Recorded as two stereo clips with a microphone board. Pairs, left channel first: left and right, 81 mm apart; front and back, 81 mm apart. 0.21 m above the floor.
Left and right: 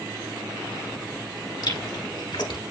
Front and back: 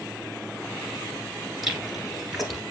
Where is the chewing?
90° left, 1.9 m.